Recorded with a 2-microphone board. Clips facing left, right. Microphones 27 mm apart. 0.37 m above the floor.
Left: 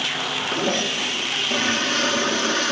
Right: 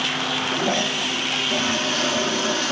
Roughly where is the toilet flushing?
Centre.